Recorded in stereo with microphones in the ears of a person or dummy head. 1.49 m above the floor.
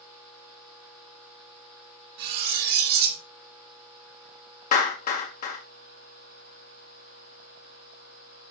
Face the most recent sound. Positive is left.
turn(degrees=45)  # may be behind; listen again after turning